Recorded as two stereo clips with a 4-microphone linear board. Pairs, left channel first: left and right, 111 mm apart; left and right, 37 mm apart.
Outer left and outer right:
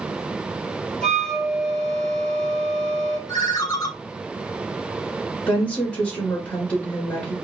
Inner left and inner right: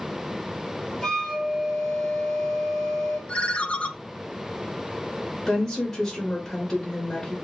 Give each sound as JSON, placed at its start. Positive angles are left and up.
{"t": 1.0, "sound": "a flute", "side_deg": 5, "distance_m": 1.2}
{"t": 3.3, "sound": "a ringtone", "side_deg": 30, "distance_m": 0.5}
{"t": 5.5, "sound": "a woman speaking", "side_deg": 10, "distance_m": 1.2}